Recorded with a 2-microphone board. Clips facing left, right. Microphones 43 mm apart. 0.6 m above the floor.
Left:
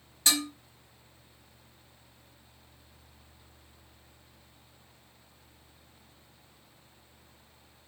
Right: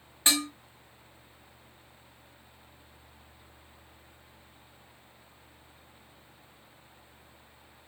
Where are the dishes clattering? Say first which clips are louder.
Right 1 dB; 30° right (ahead or behind), 1.0 m.